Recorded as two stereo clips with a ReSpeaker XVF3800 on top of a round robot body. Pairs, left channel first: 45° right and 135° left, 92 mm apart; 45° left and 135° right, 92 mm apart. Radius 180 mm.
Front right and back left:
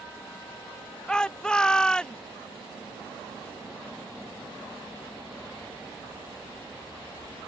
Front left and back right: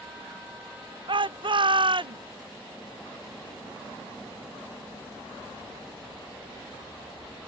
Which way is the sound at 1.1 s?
125° right.